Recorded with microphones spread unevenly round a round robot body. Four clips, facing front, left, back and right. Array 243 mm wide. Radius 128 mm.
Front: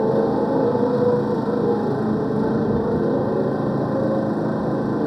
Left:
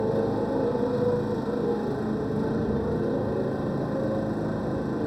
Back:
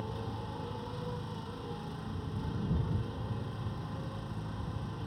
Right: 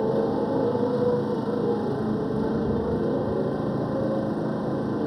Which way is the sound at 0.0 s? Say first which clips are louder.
Right 2 dB, front 23 dB; 5° right.